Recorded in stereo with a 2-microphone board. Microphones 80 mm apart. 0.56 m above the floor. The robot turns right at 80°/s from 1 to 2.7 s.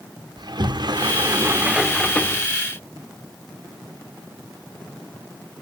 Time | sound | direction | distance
0.4 | a sliding door | 75° right | 0.7 m